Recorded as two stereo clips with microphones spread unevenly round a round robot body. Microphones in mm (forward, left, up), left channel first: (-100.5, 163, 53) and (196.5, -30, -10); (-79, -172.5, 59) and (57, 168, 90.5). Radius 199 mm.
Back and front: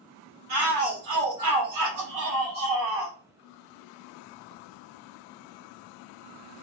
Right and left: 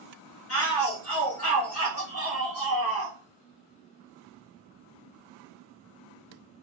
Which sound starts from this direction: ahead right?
A shout, at 0.5 s.